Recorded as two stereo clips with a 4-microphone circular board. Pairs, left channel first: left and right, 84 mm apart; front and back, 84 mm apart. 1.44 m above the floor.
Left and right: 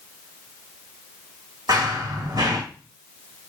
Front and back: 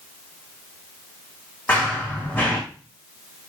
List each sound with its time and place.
1.7 s running footsteps: 65° right, 3.5 m